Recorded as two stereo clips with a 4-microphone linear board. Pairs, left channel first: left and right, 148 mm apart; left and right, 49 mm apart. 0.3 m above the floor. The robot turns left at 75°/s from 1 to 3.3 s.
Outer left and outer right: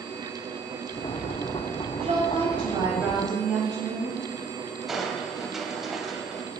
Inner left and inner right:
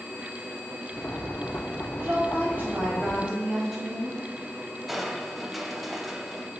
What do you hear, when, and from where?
2.0 s a woman speaking: 90° right, 1.9 m; by 4.2 s 175° left, 1.9 m
4.9 s crushing: centre (ahead or behind), 0.6 m